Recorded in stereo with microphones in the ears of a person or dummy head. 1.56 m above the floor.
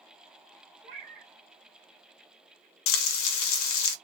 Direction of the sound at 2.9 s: 75° left (ahead or behind).